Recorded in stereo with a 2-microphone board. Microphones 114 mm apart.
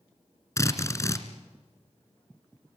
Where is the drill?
25° left (ahead or behind), 1.9 m.